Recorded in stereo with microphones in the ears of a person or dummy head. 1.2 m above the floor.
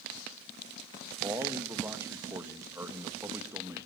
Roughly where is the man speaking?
Centre.